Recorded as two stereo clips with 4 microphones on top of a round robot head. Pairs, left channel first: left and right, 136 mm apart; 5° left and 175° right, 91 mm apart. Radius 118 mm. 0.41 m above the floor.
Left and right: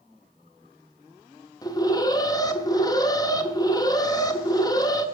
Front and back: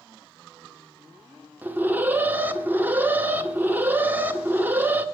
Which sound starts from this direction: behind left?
An alarm, at 1.6 s.